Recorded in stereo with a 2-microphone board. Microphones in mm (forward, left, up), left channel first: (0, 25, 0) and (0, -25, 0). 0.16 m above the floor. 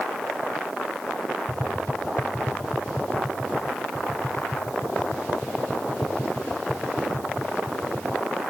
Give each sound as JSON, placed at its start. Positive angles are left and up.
{"t": 1.5, "sound": "tapping", "side_deg": 70}